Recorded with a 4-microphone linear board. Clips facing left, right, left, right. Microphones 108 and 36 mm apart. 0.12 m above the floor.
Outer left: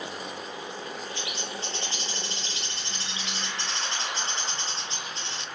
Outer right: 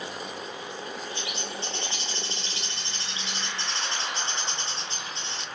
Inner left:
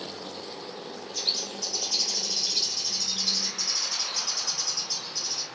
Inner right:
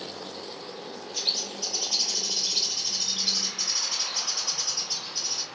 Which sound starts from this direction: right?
A bird, at 1.1 s.